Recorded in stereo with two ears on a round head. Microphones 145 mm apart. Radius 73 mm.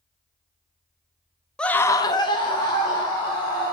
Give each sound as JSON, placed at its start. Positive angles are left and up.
{"t": 1.6, "sound": "a scream", "side_deg": 5, "distance_m": 0.6}